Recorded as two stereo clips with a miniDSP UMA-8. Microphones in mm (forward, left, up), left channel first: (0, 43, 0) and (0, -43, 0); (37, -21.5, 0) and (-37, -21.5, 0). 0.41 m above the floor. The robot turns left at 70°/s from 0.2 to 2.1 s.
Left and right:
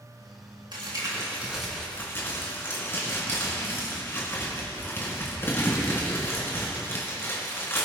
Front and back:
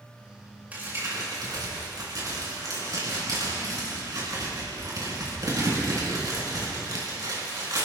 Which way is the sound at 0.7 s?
115° right.